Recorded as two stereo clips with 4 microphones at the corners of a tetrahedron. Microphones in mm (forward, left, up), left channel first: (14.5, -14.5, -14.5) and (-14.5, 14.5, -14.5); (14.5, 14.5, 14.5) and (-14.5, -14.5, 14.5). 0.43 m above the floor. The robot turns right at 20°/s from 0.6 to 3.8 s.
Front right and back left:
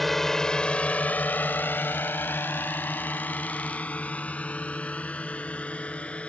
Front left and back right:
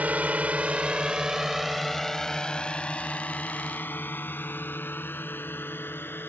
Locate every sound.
0.0 s a drone: 125° right; by 6.3 s 15° left